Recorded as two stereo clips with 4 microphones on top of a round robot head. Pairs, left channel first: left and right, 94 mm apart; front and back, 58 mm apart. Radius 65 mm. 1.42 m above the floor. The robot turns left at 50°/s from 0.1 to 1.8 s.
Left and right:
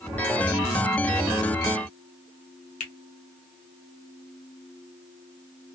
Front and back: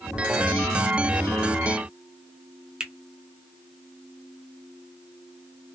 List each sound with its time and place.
2.8 s a finger snap: 110° left, 1.1 m